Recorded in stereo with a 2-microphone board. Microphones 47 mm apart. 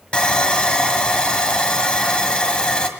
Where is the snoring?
No snoring in this recording.